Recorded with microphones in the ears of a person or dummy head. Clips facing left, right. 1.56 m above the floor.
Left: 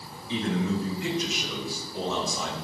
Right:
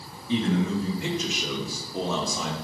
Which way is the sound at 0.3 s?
50° right (ahead or behind).